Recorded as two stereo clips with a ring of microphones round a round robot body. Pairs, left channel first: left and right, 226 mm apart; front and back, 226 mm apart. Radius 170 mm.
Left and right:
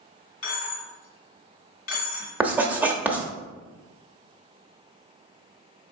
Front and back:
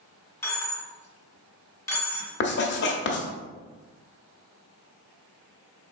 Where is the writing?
10° right, 0.9 m.